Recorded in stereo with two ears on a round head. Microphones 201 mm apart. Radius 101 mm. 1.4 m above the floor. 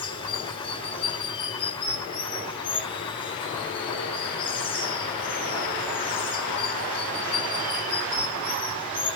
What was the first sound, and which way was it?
Running water, 25° left (ahead or behind).